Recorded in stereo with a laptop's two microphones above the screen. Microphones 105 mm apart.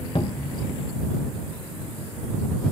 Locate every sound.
0.1 s a cupboard door: 55° left (ahead or behind)